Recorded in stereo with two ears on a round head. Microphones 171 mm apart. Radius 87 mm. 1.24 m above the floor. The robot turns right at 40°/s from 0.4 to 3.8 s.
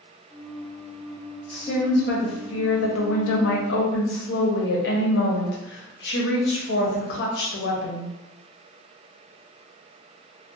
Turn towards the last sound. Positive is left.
turn(degrees=120)